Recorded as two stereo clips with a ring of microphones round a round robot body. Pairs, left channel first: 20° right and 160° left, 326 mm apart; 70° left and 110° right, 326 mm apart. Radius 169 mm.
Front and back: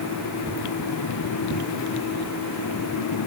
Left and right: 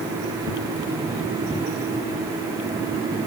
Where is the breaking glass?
I don't hear breaking glass.